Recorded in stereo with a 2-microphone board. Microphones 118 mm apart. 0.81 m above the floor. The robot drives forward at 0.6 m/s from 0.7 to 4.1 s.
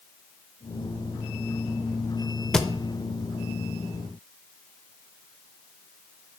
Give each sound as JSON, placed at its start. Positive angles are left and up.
{"t": 2.5, "sound": "a thud", "side_deg": 5, "distance_m": 0.7}